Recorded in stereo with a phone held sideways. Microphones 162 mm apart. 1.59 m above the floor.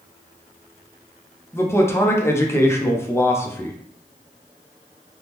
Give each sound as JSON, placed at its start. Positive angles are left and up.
{"t": 1.5, "sound": "a man speaking", "side_deg": 15, "distance_m": 0.6}